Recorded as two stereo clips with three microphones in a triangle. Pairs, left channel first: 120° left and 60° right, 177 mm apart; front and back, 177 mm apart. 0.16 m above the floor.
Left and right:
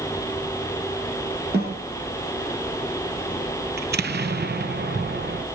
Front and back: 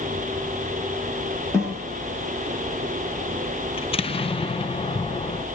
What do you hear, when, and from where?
1.5 s a snare drum: 75° right, 9 m
3.8 s an explosion: 55° right, 0.6 m